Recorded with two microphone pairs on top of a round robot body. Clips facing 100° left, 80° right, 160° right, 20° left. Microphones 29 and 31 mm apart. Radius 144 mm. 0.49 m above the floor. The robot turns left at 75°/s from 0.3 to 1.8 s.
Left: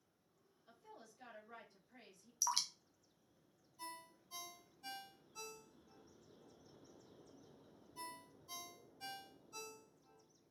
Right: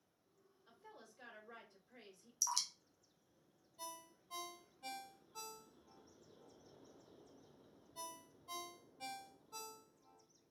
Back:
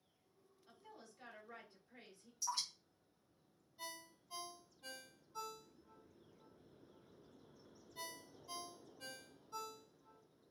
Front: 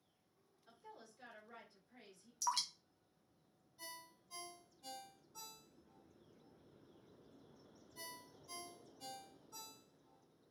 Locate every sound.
0.7 s a woman speaking: 35° right, 2 m; by 2.3 s 120° right, 2 m
2.4 s dripping: 35° left, 0.5 m
3.8 s a ringtone: 95° right, 2 m